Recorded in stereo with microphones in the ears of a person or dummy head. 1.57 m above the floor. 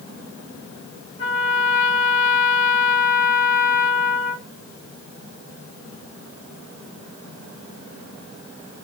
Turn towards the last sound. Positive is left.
turn(degrees=50)  # may be behind; listen again after turning